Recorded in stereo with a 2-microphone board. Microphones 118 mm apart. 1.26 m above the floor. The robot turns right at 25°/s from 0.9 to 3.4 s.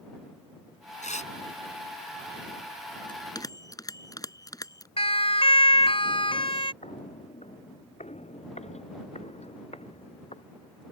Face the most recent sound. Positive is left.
turn(degrees=60)  # may be behind; listen again after turning